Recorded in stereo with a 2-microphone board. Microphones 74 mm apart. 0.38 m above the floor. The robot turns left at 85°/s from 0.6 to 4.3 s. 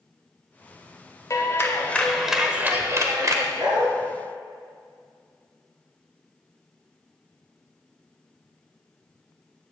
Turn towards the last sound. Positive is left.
turn(degrees=-140)